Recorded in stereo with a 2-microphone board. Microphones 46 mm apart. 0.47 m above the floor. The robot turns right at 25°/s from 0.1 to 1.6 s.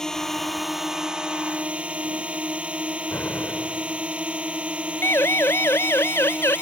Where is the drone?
170° left; by 6.6 s 155° right.